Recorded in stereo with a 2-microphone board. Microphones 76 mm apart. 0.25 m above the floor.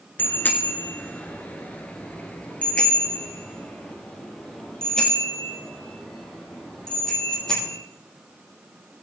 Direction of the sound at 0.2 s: 25° left (ahead or behind).